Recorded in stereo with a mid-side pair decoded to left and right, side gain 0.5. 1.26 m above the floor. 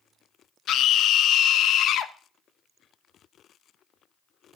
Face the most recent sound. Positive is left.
turn(degrees=65)